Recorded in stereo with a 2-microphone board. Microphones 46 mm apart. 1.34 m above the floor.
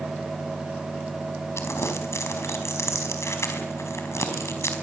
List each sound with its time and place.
1.6 s crumpling: 70° left (ahead or behind), 4.5 m